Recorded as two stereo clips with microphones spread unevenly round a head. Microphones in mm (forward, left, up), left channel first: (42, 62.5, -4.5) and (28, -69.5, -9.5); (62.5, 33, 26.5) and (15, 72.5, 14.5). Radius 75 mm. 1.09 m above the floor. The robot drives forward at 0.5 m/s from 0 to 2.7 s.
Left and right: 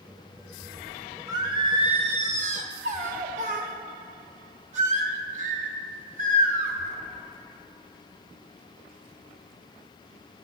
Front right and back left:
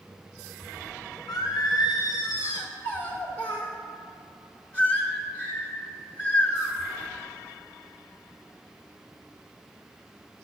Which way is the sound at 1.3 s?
35° right.